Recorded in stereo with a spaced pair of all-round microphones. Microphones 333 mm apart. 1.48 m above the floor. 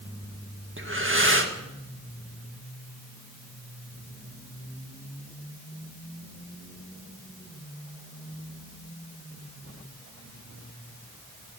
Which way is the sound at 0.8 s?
35° right (ahead or behind).